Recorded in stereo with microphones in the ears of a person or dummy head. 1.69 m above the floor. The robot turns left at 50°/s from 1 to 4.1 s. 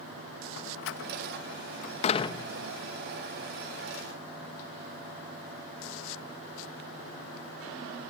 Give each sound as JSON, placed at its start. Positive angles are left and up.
{"t": 0.6, "sound": "a door slam", "side_deg": 65, "distance_m": 1.5}